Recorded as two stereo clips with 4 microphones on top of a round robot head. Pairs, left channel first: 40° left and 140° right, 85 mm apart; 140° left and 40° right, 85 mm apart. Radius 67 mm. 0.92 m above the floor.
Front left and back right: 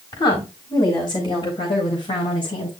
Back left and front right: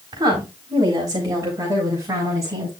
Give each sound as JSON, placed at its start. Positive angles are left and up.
{"t": 0.1, "sound": "a woman speaking", "azimuth_deg": 5, "distance_m": 4.5}